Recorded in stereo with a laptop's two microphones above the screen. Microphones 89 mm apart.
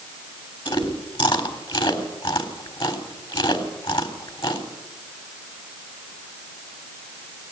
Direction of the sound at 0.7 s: 70° left (ahead or behind).